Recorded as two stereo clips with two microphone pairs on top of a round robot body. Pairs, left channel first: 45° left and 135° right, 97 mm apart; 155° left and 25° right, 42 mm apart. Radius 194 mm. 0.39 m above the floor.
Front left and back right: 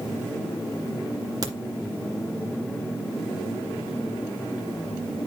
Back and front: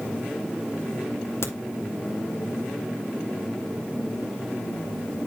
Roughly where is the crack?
Behind.